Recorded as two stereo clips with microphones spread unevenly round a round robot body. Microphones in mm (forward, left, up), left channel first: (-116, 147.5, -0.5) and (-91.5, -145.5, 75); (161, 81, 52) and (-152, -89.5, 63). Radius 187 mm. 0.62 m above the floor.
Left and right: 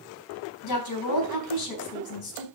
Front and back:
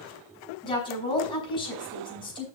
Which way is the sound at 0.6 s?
105° left.